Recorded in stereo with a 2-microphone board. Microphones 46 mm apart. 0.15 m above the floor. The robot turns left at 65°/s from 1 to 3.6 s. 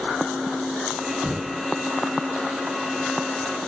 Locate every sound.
1.2 s knocking: 40° right (ahead or behind), 1.0 m; by 1.7 s 25° right (ahead or behind), 1.0 m